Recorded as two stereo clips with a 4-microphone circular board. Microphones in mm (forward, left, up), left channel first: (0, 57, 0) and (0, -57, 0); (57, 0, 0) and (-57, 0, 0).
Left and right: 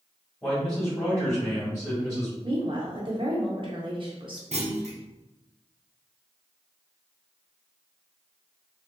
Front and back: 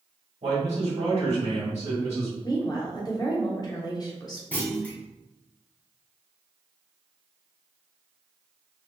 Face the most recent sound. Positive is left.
turn(degrees=-75)